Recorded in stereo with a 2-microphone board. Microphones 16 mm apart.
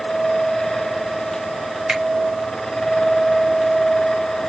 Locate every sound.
1.9 s a finger snap: 70° right (ahead or behind), 2.5 m